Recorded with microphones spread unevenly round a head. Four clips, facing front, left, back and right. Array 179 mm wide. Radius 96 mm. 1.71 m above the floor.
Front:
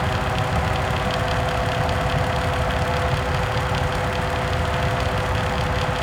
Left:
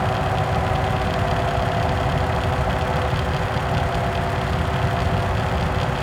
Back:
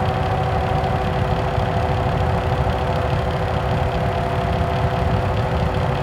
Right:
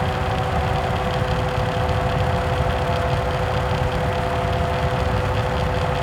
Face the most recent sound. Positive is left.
No sound to turn to.